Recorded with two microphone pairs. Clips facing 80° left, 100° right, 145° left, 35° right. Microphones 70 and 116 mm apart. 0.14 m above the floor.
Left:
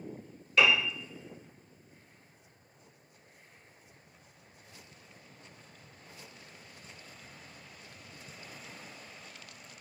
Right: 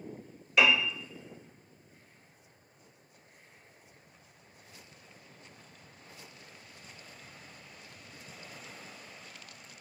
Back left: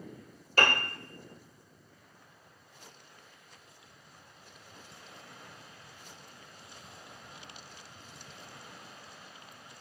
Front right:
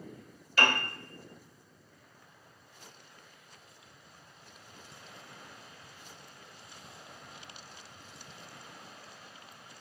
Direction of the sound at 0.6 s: Straight behind.